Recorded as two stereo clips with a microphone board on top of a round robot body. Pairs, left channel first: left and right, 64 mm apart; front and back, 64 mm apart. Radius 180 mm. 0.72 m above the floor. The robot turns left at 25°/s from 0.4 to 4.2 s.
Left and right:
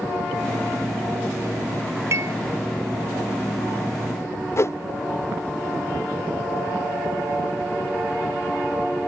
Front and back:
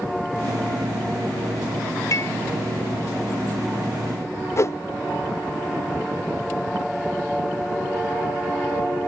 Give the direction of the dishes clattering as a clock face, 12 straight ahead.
1 o'clock.